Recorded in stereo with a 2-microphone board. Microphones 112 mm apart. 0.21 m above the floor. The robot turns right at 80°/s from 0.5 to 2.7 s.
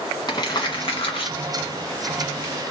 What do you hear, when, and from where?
0.3 s crumpling: 40° left (ahead or behind), 1.8 m; by 2.6 s 30° right (ahead or behind), 1.8 m